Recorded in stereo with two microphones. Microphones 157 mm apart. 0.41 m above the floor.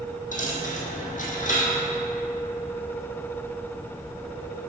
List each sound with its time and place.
0.3 s a dropped coin: 60° left (ahead or behind), 1.6 m